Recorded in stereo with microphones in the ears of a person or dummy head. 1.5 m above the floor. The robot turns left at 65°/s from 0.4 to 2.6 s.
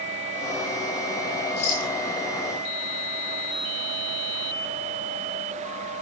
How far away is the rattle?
About 7.5 m.